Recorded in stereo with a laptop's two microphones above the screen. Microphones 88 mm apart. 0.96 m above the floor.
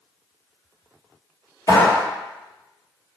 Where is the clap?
45° left (ahead or behind), 1.5 m.